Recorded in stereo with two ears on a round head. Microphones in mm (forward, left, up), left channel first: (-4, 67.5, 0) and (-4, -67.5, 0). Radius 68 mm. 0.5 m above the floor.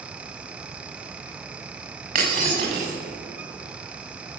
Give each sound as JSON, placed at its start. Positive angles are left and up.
{"t": 2.1, "sound": "breaking glass", "side_deg": -55, "distance_m": 7.0}